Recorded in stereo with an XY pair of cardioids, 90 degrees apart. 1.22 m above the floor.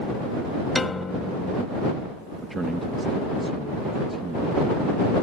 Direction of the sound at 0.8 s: 30° left.